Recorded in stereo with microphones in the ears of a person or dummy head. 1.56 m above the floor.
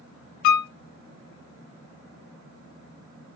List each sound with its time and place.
0.4 s a piano: 60° left (ahead or behind), 0.6 m